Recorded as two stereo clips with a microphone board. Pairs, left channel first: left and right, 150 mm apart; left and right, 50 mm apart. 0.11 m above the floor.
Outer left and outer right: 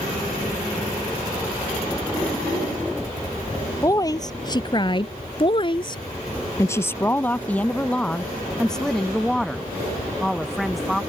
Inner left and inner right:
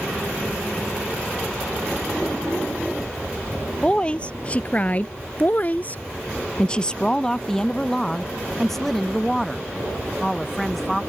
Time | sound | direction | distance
3.8 | a woman speaking | 25° left (ahead or behind) | ?